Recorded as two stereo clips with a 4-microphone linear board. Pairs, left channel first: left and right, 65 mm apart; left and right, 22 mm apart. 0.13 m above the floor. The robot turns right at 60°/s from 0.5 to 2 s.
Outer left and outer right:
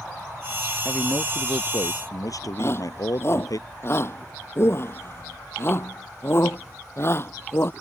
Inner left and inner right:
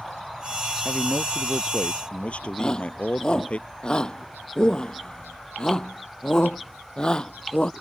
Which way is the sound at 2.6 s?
40° left (ahead or behind).